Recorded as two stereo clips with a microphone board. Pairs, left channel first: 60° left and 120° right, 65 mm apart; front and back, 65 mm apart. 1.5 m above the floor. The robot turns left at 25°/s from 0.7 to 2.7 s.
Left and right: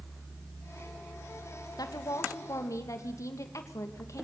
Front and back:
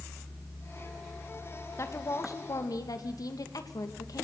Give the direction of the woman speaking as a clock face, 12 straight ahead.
11 o'clock.